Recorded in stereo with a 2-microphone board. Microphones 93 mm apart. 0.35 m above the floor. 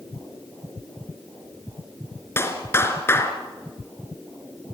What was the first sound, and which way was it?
A clap, 25° left (ahead or behind).